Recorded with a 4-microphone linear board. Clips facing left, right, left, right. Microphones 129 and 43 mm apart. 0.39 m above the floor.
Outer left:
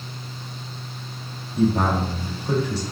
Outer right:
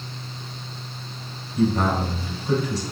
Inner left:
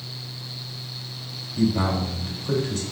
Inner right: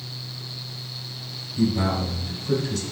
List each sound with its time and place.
1.6 s a man speaking: 30° left (ahead or behind), 1.7 m